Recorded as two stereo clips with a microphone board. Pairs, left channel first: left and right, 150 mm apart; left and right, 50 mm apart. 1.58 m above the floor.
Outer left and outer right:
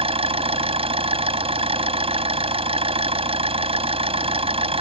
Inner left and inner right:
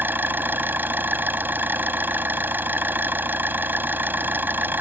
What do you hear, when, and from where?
0.0 s an engine running: 40° right (ahead or behind)